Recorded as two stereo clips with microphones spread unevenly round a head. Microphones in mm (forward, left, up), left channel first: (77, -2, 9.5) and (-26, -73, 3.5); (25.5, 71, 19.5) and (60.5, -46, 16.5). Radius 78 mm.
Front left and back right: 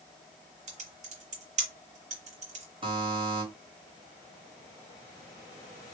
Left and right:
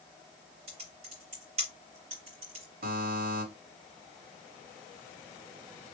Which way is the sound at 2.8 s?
100° right.